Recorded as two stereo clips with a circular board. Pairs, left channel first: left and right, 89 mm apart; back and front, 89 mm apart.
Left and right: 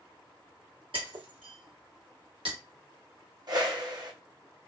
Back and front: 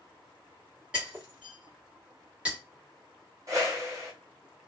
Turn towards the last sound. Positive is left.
turn(degrees=-55)